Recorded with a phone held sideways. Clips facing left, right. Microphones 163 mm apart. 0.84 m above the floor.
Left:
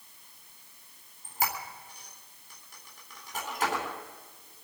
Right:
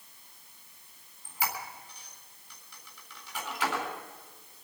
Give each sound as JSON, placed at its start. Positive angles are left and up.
{"t": 1.2, "sound": "a squeak", "side_deg": 50, "distance_m": 4.0}